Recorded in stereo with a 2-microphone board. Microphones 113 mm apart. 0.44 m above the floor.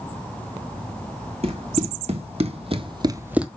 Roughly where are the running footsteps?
Right.